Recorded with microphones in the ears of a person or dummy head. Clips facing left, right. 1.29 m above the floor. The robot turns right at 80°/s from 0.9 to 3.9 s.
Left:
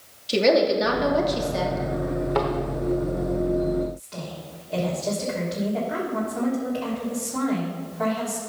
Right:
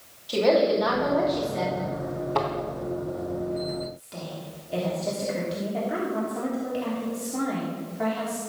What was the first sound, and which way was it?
A woman speaking, 30° left.